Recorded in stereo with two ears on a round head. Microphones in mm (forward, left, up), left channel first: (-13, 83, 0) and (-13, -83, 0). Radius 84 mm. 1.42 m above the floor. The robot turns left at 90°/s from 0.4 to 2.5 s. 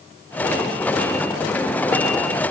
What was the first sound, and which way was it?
Only background noise.